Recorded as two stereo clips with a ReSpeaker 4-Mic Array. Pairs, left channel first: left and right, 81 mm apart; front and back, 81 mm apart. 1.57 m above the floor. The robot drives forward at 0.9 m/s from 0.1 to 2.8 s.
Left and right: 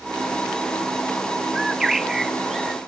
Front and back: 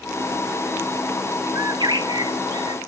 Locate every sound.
1.6 s a bird: 170° right; by 2.8 s straight behind